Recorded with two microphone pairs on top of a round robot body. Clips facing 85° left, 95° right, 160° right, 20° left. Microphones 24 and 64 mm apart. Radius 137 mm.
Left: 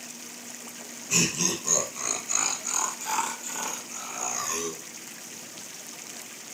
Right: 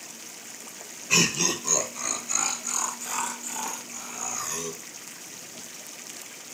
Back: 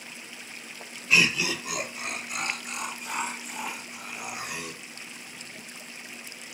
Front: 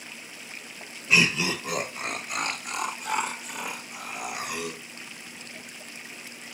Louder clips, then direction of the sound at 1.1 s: Right 3 dB, front 1 dB; 45° right.